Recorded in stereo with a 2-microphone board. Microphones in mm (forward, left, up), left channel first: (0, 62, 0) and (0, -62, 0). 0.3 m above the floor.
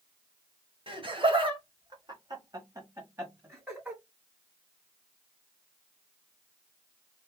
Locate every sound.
0.9 s laughter: 45° right (ahead or behind), 1.3 m; by 4.0 s 15° right (ahead or behind), 1.8 m